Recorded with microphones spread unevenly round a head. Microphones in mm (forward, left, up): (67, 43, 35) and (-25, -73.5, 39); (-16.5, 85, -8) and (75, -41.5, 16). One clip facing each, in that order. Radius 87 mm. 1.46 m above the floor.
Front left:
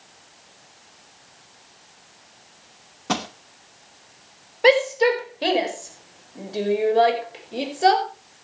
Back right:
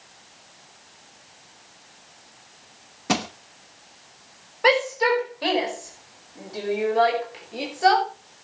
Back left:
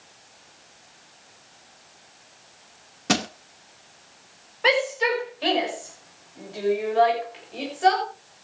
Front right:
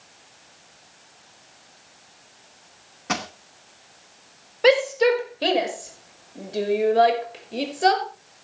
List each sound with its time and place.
3.1 s crushing: 160° left, 0.8 m
4.6 s a shout: 10° right, 5.5 m